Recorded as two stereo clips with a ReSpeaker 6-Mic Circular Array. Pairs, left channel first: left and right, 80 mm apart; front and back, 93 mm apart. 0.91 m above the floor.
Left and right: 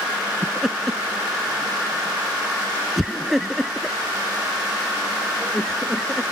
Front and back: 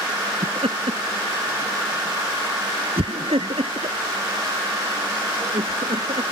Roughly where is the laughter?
Behind.